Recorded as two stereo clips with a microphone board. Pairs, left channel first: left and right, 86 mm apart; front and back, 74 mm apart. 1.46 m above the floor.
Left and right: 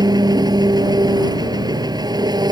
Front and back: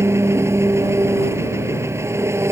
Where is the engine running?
130° right.